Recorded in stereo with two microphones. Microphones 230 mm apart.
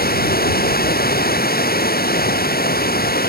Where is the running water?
40° left (ahead or behind).